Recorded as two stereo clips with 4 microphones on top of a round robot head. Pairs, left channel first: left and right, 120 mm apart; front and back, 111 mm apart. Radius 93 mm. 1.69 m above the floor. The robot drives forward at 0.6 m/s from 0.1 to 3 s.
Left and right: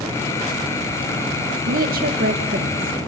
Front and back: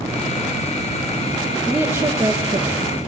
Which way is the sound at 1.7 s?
95° right.